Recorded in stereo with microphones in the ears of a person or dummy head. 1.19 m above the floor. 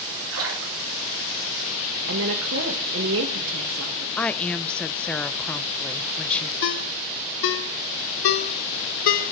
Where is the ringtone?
65° left (ahead or behind), 1.0 m.